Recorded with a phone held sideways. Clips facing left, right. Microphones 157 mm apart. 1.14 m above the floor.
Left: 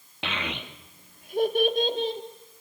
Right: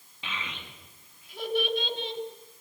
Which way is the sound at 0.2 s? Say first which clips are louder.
Left 7 dB; 75° left (ahead or behind).